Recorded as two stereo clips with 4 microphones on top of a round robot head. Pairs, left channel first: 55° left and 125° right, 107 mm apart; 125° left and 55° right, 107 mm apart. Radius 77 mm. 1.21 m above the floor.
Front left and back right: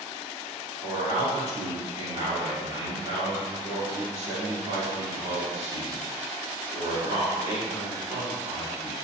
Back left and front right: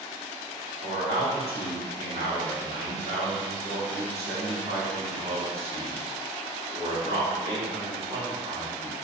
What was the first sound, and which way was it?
A man speaking, 95° right.